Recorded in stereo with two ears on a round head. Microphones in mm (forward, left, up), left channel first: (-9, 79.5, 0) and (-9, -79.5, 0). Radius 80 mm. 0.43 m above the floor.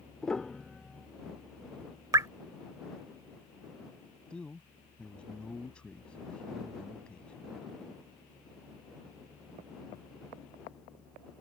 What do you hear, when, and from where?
0.2 s a piano: 5° left (ahead or behind)
2.1 s dripping: 20° right (ahead or behind)
4.3 s a man speaking: 5° left (ahead or behind)